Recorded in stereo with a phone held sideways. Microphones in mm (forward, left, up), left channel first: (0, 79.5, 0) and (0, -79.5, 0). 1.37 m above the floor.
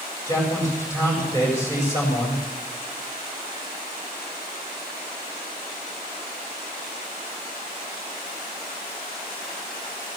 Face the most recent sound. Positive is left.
turn(degrees=20)  # may be behind; listen again after turning